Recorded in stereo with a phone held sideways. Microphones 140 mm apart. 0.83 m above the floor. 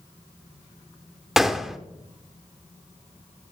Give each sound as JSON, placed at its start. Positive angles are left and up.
{"t": 1.4, "sound": "a gunshot", "side_deg": -5, "distance_m": 0.6}